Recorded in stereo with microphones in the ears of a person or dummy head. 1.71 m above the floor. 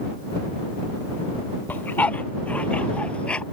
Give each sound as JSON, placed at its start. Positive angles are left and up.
{"t": 1.7, "sound": "a dog barking", "side_deg": 10}